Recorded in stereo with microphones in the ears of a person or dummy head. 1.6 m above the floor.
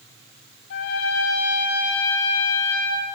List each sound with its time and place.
0.7 s a trumpet: 60° left (ahead or behind), 5 m